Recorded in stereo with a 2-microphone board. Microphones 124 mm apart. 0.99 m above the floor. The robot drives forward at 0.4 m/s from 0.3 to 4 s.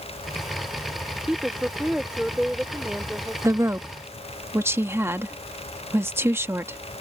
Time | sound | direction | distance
1.3 | a woman speaking | 5° right (ahead or behind) | ?
3.4 | a woman speaking | 25° right (ahead or behind) | ?